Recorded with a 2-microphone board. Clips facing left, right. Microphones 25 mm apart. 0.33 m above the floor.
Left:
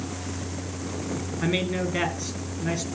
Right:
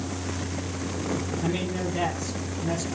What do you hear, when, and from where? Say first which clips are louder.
1.4 s a man speaking: left 2 dB; 50° left (ahead or behind), 5 m